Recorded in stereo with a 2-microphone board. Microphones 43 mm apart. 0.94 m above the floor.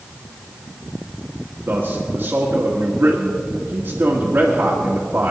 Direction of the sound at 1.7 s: 55° right (ahead or behind).